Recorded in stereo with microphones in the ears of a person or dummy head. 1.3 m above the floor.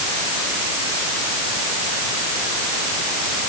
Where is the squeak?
I don't hear a squeak.